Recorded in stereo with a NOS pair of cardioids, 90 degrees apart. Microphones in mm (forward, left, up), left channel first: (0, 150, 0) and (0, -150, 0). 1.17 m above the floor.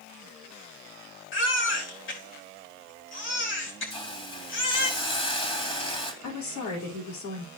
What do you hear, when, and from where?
1.3 s a baby crying: 40° left, 3.5 m
3.9 s a hiss: 20° left, 3 m
6.2 s a woman speaking: 70° left, 4 m